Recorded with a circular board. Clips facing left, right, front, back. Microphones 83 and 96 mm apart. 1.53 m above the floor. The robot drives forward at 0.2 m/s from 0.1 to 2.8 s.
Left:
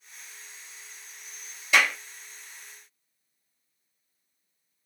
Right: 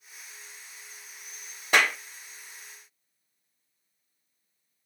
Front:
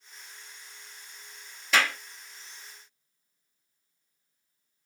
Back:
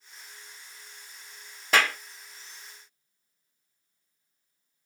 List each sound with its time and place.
1.7 s a clap: 135° right, 1.3 m